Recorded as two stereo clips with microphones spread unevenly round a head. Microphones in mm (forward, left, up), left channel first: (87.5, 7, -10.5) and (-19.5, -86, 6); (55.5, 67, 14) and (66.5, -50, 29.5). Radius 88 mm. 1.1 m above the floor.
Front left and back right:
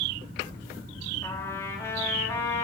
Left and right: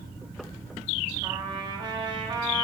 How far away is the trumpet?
About 1.6 m.